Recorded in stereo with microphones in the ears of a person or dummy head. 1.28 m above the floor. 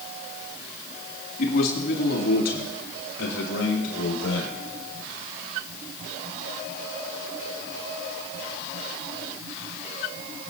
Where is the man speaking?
50° left (ahead or behind), 1.8 m; by 4.6 s 85° left, 4.5 m.